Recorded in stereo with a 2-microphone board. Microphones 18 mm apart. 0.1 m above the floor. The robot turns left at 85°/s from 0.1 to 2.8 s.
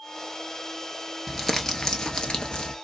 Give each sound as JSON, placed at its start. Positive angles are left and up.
{"t": 1.3, "sound": "crumpling", "azimuth_deg": -175, "distance_m": 0.8}